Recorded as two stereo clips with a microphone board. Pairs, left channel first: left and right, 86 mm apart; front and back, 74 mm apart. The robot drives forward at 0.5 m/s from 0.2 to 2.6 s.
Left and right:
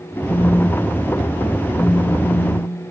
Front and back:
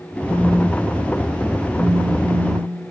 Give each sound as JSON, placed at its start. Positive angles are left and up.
{"t": 0.3, "sound": "a phone buzzing", "azimuth_deg": 105, "distance_m": 2.5}